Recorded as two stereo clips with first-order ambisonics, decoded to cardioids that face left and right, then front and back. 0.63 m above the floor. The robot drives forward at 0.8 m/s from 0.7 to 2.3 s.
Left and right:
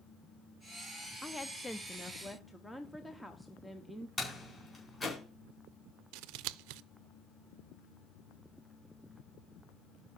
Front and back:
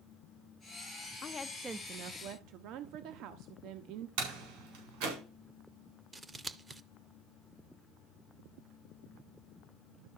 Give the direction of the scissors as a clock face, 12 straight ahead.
3 o'clock.